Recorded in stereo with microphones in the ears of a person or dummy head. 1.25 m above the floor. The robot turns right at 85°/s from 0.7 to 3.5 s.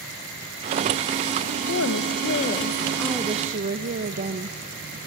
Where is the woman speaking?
65° left, 0.9 m; by 4.6 s 140° right, 0.9 m.